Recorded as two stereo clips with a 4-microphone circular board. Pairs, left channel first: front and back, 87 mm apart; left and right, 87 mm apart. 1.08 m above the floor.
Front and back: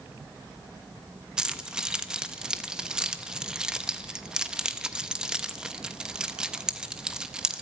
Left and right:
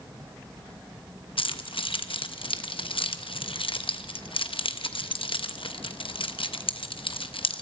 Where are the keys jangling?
100° left, 0.8 m.